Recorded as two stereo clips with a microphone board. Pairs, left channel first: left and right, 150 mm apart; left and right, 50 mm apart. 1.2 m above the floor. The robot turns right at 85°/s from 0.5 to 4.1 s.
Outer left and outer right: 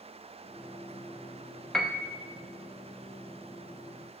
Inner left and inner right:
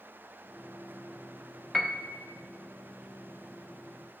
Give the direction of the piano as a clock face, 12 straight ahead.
6 o'clock.